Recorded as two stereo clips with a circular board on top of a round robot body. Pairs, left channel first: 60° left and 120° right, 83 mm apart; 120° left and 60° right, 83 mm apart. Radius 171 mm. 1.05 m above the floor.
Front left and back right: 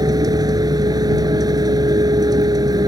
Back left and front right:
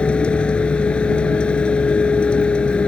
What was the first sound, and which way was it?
A vehicle, 165° right.